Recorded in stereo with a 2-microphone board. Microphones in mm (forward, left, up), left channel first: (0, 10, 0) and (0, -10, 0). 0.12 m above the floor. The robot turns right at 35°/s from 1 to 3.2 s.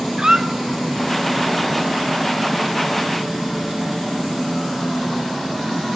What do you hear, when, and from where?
0.2 s a squeak: 35° right (ahead or behind), 1.2 m